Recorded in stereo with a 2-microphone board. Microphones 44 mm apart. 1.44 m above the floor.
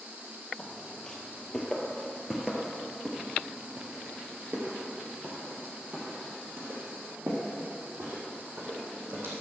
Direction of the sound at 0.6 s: 20° left (ahead or behind).